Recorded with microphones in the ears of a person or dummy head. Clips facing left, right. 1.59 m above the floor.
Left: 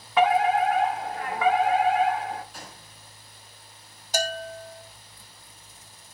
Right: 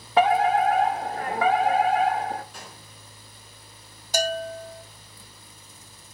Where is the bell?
70° right (ahead or behind), 1.2 m.